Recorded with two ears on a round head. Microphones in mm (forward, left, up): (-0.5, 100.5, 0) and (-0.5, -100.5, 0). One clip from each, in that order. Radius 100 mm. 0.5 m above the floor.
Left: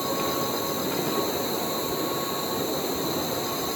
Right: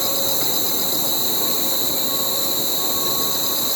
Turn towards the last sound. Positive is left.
turn(degrees=-75)  # may be behind; listen again after turning